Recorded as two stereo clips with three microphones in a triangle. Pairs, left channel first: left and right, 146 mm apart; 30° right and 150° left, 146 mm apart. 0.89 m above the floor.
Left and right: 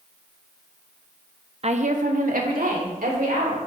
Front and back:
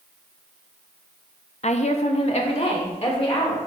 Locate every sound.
1.6 s a woman speaking: 55° right, 0.6 m; by 3.6 s 80° right, 3 m